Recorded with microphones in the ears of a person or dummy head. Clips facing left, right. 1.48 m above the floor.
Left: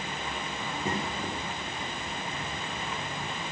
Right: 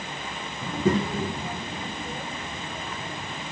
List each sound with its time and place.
0.6 s a child speaking: 75° right (ahead or behind), 1.2 m; by 3.4 s 25° right (ahead or behind), 4 m